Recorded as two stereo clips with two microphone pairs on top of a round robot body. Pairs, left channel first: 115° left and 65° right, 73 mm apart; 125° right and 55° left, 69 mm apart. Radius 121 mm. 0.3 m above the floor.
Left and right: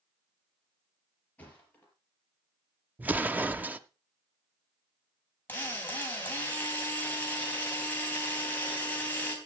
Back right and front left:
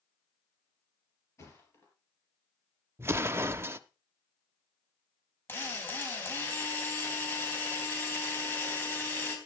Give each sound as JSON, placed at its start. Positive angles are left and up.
{"t": 1.4, "sound": "a thud", "azimuth_deg": -175, "distance_m": 4.0}
{"t": 3.0, "sound": "an explosion", "azimuth_deg": 0, "distance_m": 0.7}
{"t": 5.5, "sound": "a drill", "azimuth_deg": -175, "distance_m": 3.5}